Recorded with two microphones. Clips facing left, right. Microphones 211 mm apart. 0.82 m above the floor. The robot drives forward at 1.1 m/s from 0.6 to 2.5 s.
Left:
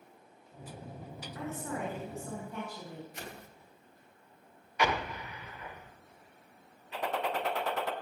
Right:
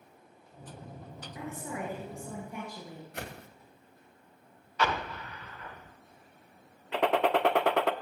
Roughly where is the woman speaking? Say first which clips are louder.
Left 1 dB; centre.